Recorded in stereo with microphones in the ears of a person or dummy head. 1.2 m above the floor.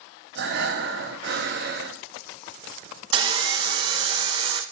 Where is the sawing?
25° right (ahead or behind), 0.7 m.